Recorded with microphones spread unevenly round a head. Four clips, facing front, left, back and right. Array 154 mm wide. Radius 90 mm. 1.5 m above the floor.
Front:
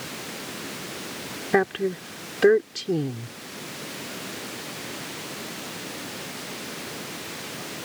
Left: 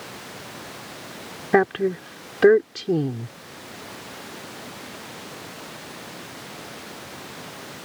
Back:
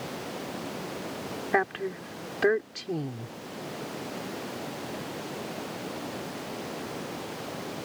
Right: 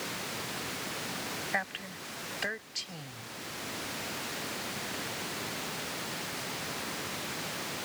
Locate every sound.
1.5 s a woman speaking: 60° left